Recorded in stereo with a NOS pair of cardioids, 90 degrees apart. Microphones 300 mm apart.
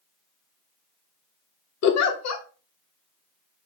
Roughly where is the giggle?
Ahead left.